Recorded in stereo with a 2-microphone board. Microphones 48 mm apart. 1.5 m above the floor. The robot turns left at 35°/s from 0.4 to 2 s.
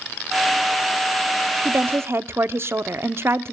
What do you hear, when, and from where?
1.6 s a woman speaking: 45° right (ahead or behind), 0.7 m; by 3.5 s 60° right (ahead or behind), 0.7 m